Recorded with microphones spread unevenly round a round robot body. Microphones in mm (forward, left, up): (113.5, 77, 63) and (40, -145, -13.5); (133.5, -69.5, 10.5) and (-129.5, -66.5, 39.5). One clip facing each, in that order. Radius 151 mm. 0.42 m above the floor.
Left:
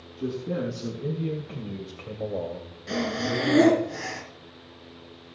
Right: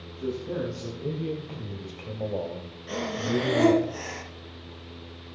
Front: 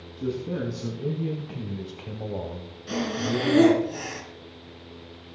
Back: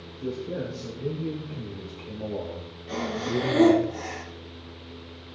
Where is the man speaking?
15° left, 4.5 m; by 3.9 s 90° right, 2.5 m.